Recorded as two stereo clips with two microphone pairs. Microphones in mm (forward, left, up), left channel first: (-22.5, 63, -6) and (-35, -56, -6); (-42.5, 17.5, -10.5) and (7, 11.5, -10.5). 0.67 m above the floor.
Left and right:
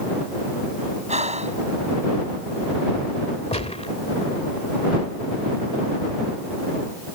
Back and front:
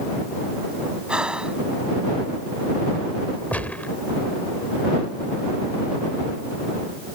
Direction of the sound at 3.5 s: 115° left.